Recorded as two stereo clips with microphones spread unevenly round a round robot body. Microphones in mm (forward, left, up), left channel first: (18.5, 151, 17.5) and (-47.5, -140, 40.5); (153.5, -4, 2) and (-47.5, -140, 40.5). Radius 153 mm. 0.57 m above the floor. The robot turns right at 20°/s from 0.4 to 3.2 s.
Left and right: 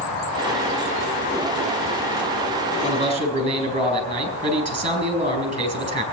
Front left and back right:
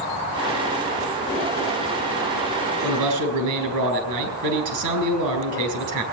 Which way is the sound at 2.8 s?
Straight behind.